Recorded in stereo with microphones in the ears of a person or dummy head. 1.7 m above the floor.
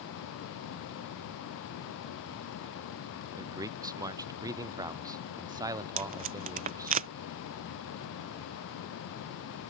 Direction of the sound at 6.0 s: 40° right (ahead or behind).